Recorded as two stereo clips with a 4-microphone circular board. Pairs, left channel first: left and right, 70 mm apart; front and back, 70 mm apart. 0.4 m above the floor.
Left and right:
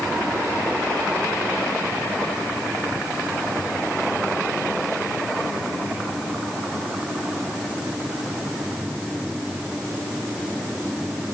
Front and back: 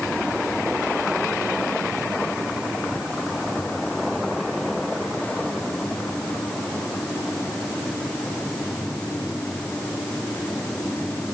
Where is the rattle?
I don't hear a rattle.